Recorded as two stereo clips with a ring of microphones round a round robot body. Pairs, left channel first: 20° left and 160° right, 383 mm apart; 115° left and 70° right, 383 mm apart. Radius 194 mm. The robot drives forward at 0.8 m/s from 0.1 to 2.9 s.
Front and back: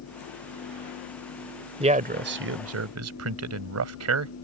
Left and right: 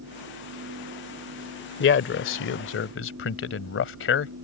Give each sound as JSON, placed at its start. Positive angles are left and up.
{"t": 1.8, "sound": "a man speaking", "azimuth_deg": 140}